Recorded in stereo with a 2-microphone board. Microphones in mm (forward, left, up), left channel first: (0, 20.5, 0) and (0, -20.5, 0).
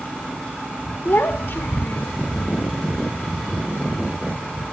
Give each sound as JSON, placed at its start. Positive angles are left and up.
{"t": 1.1, "sound": "a child speaking", "side_deg": 70, "distance_m": 1.7}